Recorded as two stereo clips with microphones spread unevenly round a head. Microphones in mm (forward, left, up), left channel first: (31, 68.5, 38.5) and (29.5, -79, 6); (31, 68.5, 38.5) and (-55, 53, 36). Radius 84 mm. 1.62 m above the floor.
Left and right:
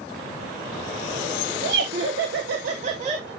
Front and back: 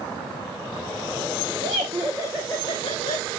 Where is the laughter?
135° right, 1.2 m; by 3.3 s 35° right, 1.7 m.